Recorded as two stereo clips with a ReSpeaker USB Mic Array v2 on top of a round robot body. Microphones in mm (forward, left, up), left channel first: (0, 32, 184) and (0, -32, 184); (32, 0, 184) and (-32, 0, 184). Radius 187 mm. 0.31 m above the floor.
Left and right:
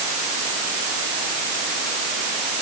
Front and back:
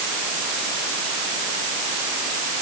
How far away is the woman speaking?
No woman speaking in this recording.